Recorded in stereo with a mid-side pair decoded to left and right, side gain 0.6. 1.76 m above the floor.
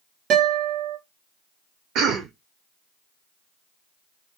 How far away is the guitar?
About 2 m.